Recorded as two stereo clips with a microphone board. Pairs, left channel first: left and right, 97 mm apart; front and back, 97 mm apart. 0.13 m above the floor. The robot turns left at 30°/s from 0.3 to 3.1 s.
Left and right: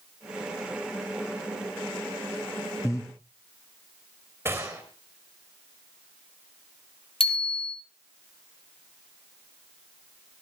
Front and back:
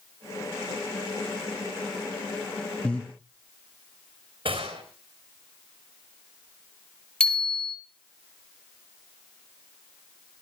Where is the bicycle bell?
80° left, 3 m.